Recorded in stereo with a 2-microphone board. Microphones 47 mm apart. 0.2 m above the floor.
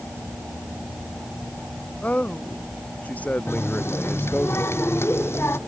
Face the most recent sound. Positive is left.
turn(degrees=55)  # may be behind; listen again after turning